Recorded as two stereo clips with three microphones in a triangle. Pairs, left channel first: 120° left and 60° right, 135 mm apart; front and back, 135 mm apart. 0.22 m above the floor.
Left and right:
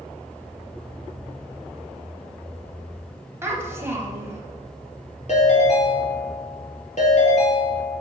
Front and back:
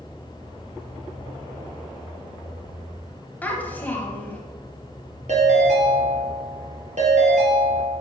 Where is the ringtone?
150° left, 2.5 m.